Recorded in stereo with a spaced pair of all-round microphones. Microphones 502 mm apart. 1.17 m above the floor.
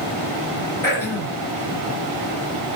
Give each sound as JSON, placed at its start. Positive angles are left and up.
{"t": 0.8, "sound": "throat clearing", "side_deg": 80, "distance_m": 5.0}